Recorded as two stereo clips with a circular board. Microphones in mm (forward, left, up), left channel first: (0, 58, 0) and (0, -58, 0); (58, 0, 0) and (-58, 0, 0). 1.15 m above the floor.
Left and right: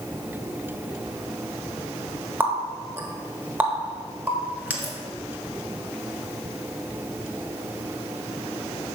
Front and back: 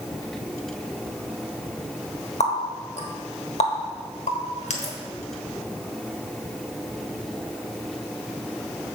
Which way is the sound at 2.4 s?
15° right.